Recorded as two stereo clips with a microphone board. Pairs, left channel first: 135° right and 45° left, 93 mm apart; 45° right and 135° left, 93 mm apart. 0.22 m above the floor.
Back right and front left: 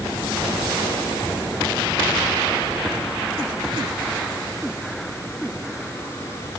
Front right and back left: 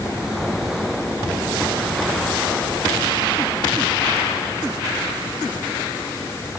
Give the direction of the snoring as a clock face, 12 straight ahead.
I don't hear snoring.